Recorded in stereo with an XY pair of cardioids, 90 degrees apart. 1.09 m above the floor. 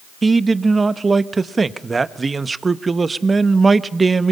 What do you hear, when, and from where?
0.2 s a man speaking: 35° right, 1.2 m